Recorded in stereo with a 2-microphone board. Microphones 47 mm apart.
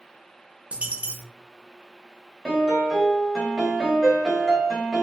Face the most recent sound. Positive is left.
turn(degrees=-10)  # may be behind; listen again after turning